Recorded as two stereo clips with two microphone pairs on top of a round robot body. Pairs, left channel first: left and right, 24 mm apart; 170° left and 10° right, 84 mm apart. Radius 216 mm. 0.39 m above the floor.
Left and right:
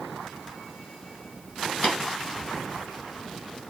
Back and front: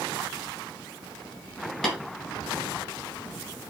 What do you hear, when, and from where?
1.8 s tapping: 85° left, 2.5 m